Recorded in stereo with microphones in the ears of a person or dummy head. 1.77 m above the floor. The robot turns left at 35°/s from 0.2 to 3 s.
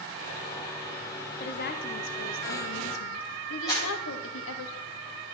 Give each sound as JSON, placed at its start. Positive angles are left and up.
{"t": 1.4, "sound": "a woman speaking", "azimuth_deg": 135, "distance_m": 1.1}
{"t": 3.7, "sound": "a clap", "side_deg": 25, "distance_m": 8.0}